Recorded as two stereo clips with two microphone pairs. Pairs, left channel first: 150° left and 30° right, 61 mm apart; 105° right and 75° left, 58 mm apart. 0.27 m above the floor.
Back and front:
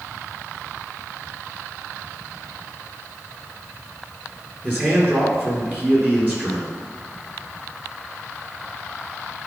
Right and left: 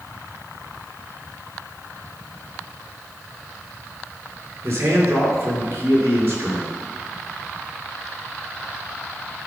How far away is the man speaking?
About 4 m.